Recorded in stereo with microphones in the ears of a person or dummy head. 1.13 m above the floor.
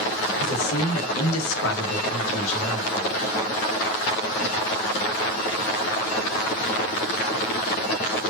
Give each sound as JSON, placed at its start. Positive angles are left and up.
{"t": 0.4, "sound": "a man speaking", "side_deg": 65, "distance_m": 1.2}